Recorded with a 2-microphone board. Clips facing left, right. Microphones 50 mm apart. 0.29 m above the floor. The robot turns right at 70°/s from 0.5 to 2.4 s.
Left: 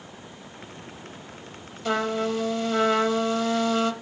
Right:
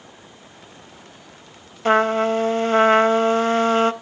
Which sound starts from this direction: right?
A trumpet, at 1.9 s.